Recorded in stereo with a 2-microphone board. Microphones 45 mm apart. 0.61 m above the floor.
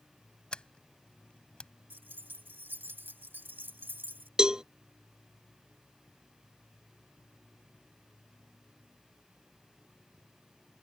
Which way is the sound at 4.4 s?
20° right (ahead or behind).